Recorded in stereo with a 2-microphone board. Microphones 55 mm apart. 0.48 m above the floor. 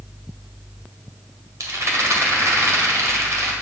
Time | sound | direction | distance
1.6 | a rattle | 65° right (ahead or behind) | 1.8 m